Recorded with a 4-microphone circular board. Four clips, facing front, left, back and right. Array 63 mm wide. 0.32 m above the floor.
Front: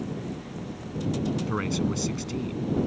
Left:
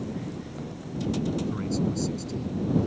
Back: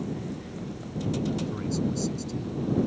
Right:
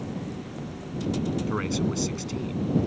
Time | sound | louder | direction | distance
1.5 | a man speaking | right 1 dB, front 2 dB | 40° right | ?